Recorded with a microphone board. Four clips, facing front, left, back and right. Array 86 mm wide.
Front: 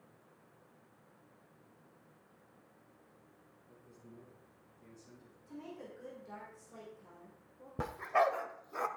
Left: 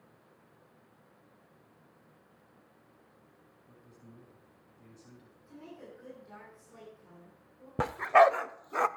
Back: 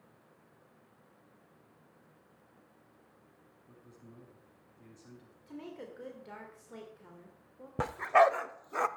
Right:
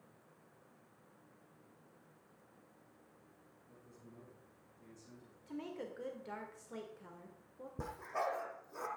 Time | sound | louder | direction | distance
3.7 | a man speaking | left 3 dB, back 1 dB | 155° left | 6.5 m
5.5 | a woman speaking | right 4 dB, back 3 dB | 130° right | 2.5 m
7.8 | a dog barking | left 18 dB, back 6 dB | 115° left | 0.6 m